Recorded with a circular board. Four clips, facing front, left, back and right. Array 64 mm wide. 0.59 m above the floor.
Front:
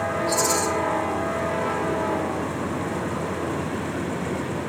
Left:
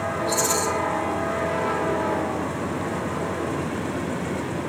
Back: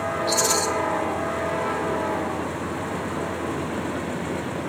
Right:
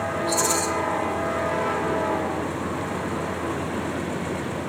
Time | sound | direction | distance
0.3 | a rattle | straight behind | 2.5 m